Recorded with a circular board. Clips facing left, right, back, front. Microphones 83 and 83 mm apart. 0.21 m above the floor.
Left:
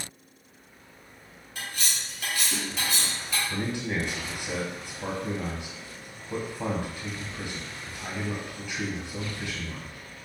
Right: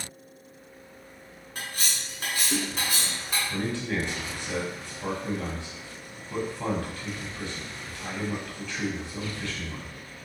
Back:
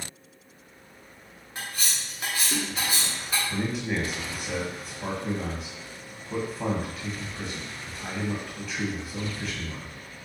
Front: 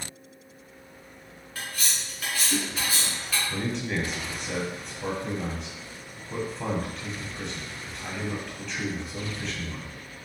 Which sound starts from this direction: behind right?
Cutlery clinking, at 1.6 s.